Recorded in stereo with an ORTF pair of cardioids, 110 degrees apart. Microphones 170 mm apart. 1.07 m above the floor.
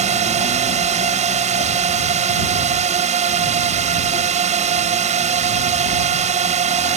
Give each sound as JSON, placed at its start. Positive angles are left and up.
{"t": 0.0, "sound": "a drone", "azimuth_deg": -45}